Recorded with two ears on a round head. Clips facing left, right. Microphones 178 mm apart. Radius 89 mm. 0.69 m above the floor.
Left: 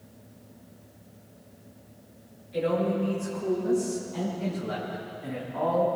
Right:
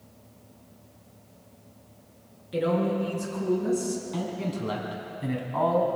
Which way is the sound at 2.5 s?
80° right.